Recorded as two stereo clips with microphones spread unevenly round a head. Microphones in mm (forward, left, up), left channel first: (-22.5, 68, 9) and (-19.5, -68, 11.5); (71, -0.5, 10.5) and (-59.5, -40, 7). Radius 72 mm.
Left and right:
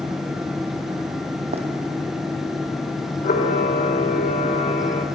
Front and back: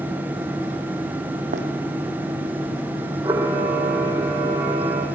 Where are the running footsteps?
130° right, 2.5 m.